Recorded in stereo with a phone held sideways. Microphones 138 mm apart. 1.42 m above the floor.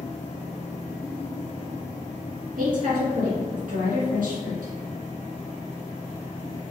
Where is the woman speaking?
80° right, 2.0 m.